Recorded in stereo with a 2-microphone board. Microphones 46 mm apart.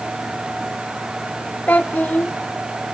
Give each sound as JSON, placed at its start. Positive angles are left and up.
{"t": 1.7, "sound": "a child speaking", "side_deg": 40, "distance_m": 0.6}